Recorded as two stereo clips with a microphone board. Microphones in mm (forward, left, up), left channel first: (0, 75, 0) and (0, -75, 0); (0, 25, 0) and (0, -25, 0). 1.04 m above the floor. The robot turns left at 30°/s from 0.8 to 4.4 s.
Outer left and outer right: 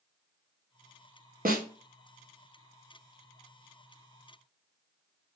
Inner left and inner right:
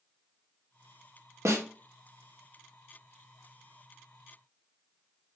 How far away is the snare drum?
About 0.8 m.